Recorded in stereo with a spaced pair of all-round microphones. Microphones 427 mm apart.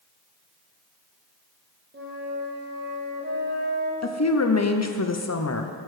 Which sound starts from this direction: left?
A woman speaking, at 4.0 s.